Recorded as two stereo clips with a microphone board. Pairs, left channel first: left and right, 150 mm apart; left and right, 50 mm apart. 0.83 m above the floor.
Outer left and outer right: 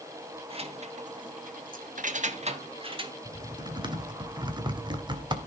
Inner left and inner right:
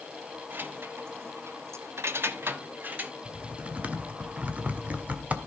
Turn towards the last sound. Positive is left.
turn(degrees=-30)  # may be behind; listen again after turning